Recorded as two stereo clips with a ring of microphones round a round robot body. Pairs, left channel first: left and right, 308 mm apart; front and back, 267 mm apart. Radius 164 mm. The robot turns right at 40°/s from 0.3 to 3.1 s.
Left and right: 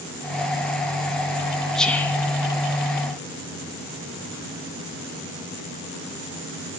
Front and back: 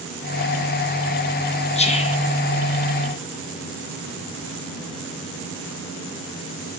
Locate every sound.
1.8 s whispering: 5° left, 0.7 m; by 2.2 s 20° left, 0.7 m